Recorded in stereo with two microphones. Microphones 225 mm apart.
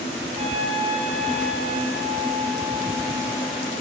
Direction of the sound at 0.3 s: 35° right (ahead or behind).